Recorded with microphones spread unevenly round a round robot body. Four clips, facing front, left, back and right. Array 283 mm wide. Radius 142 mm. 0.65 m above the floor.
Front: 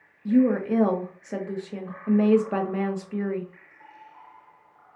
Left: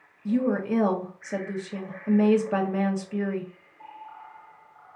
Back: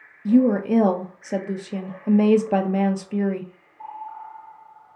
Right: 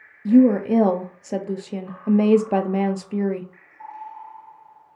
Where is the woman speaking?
135° right, 0.7 m.